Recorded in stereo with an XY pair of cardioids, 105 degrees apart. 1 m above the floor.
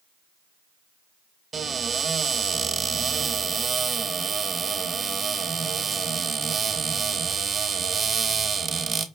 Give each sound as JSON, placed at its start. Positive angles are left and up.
{"t": 1.5, "sound": "a cupboard door", "azimuth_deg": -35, "distance_m": 0.9}